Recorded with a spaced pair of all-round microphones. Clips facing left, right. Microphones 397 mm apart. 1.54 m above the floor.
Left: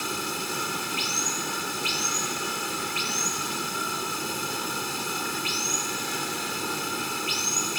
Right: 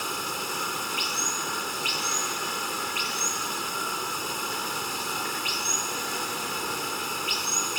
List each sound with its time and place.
0.0 s running water: 35° left (ahead or behind)